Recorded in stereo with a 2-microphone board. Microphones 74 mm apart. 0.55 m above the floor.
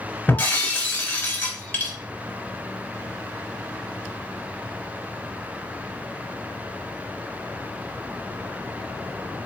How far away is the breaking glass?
About 1.5 m.